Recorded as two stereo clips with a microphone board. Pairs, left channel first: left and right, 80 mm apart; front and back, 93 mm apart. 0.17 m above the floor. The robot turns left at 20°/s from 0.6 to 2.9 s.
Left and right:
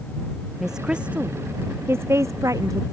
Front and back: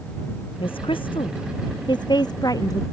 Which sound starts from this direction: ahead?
A woman speaking, at 0.6 s.